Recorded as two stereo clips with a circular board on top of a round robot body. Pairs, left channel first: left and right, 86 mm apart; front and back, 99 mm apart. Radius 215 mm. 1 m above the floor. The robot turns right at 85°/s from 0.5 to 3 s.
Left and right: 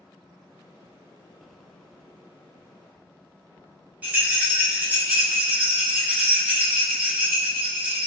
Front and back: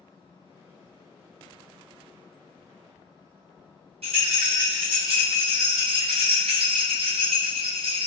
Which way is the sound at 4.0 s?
165° right.